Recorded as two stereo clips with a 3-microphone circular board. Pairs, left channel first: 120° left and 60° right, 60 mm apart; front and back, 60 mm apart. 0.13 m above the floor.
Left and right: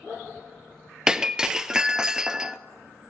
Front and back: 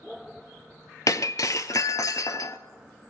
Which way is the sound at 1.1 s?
20° left.